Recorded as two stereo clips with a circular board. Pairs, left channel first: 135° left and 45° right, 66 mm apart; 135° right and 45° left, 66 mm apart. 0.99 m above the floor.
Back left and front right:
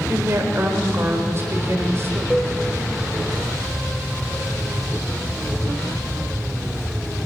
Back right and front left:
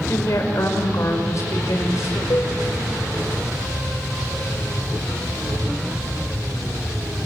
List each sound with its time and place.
0.1 s a woman speaking: 95° right, 4.5 m
2.3 s a cowbell: 155° right, 1.8 m